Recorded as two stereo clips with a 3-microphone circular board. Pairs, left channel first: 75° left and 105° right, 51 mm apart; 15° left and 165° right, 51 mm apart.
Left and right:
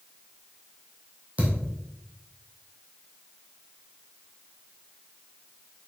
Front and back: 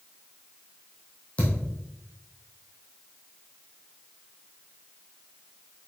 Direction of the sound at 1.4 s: 45° right.